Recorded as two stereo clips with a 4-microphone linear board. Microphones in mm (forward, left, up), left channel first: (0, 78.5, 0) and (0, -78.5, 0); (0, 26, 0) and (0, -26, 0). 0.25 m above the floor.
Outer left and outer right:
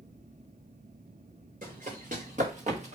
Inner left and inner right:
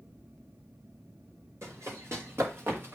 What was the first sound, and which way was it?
Running footsteps, 55° right (ahead or behind).